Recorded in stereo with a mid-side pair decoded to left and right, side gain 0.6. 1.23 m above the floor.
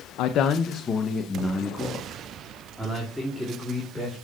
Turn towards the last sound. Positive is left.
turn(degrees=-5)